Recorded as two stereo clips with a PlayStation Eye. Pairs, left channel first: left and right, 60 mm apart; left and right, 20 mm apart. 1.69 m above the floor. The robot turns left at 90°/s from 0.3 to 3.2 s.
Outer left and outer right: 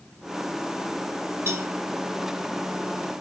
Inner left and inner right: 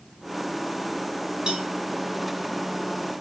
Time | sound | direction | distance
1.5 | a cowbell | 45° right (ahead or behind) | 2.5 m